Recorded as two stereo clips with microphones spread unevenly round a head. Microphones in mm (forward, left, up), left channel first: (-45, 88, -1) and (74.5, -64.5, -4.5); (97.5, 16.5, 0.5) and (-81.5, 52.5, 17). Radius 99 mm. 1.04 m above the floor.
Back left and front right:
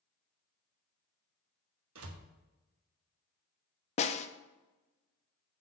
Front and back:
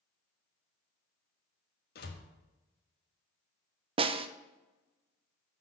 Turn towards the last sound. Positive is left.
turn(degrees=130)